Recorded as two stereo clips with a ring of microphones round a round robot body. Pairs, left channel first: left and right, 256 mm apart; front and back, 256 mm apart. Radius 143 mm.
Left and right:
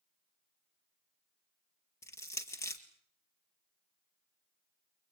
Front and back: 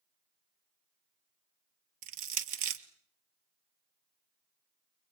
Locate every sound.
2.0 s crushing: 170° left, 1.5 m